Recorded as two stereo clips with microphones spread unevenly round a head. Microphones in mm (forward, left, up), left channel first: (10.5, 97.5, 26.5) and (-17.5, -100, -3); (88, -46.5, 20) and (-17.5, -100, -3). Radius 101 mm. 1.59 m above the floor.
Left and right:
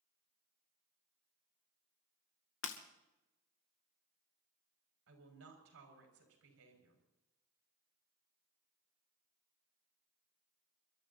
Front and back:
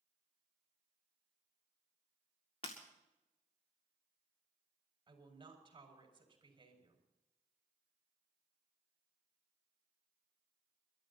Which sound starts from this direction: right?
A woman speaking, at 5.1 s.